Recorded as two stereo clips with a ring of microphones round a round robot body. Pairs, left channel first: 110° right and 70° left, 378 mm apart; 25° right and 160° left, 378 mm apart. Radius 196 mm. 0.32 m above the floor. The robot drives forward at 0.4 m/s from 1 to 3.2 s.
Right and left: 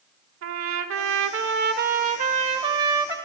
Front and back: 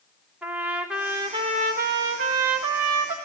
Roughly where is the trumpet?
Left.